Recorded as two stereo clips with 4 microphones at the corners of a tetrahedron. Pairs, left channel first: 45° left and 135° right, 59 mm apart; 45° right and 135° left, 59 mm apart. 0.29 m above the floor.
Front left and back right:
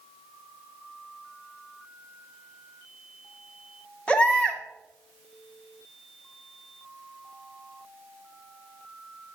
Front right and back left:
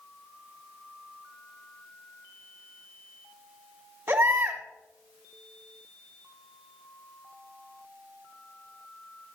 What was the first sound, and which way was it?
A baby crying, 110° left.